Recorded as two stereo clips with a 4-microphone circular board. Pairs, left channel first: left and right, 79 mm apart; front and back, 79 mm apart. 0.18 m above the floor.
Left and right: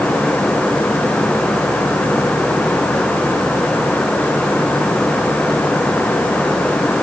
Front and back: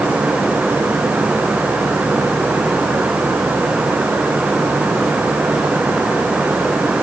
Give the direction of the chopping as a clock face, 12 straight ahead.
No chopping in this recording.